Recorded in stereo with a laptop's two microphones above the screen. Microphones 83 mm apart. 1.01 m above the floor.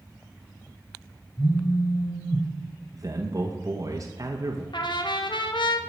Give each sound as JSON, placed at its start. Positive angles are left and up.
{"t": 1.4, "sound": "a phone buzzing", "side_deg": 60, "distance_m": 1.3}
{"t": 2.9, "sound": "a man speaking", "side_deg": -45, "distance_m": 1.0}
{"t": 4.7, "sound": "a trumpet", "side_deg": 75, "distance_m": 0.9}